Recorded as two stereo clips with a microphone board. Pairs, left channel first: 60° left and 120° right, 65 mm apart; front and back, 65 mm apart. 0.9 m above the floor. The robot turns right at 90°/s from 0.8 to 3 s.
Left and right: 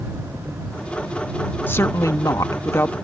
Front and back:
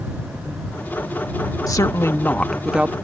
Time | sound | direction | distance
1.7 | a woman speaking | 5° left | ?